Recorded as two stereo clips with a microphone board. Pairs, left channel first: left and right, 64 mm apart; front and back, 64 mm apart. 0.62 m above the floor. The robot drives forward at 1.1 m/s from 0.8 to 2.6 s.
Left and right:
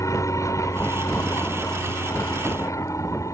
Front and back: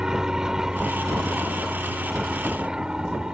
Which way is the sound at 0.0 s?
100° left.